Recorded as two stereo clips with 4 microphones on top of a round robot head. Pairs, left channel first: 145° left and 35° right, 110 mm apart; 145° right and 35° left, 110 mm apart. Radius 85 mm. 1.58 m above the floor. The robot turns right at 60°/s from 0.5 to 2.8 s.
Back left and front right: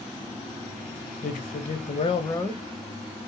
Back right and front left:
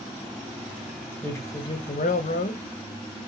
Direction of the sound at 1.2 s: 140° left.